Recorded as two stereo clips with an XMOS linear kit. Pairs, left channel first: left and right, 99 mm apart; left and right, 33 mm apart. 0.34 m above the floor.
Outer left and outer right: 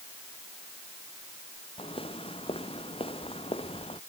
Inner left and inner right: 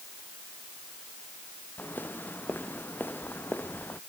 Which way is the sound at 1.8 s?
75° left (ahead or behind).